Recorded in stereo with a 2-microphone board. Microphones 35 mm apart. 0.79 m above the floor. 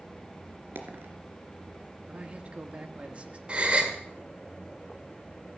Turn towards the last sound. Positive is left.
turn(degrees=-35)  # may be behind; listen again after turning